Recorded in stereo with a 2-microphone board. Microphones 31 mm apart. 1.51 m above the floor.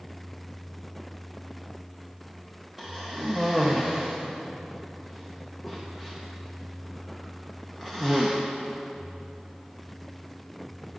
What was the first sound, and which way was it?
A cough, 15° right (ahead or behind).